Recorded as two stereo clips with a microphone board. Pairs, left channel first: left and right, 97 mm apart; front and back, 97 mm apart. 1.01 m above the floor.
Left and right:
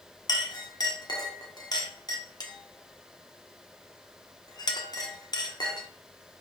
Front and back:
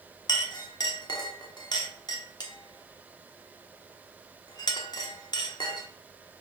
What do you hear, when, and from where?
0.3 s a clink: 45° left, 1.2 m